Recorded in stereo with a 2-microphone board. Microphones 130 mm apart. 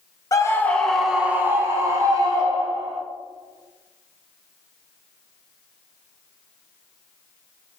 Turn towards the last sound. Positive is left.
turn(degrees=-40)  # may be behind; listen again after turning